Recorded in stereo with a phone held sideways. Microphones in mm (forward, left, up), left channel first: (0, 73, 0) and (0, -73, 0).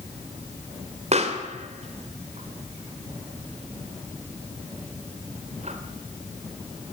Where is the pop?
50° right (ahead or behind), 2.5 m.